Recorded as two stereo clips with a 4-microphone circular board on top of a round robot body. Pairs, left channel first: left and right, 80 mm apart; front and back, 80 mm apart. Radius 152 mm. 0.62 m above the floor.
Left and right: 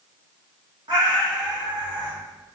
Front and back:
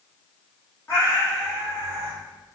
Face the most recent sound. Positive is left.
turn(degrees=-55)